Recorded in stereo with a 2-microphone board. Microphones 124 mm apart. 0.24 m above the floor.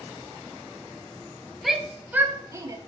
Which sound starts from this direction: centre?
A shout, at 1.6 s.